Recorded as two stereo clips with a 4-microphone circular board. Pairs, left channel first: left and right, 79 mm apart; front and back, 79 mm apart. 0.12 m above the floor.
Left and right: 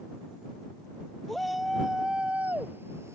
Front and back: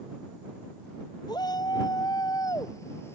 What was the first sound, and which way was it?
A shout, 5° left.